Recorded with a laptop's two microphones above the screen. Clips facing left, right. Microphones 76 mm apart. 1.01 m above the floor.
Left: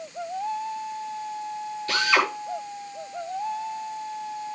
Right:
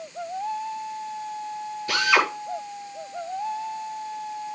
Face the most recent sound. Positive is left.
turn(degrees=-10)  # may be behind; listen again after turning